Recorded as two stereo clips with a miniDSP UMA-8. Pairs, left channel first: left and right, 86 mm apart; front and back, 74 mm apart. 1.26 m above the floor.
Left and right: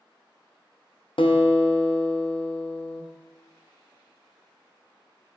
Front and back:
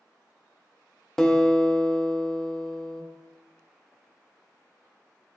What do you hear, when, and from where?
1.2 s a guitar: 80° left, 0.8 m